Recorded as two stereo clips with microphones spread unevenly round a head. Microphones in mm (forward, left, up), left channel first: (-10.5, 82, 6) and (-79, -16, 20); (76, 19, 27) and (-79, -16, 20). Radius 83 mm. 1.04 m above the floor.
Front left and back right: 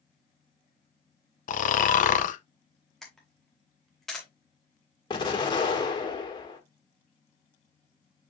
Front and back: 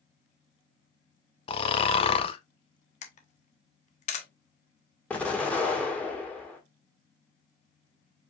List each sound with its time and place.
1.5 s snoring: 75° left, 0.5 m
3.0 s a camera shutter: 35° right, 0.9 m
5.1 s an explosion: 95° left, 1.4 m